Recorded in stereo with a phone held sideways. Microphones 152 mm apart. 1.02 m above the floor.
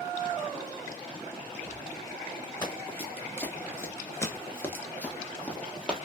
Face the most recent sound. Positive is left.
turn(degrees=5)  # may be behind; listen again after turning